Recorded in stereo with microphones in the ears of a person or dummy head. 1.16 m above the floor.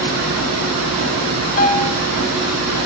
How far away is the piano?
About 1.9 m.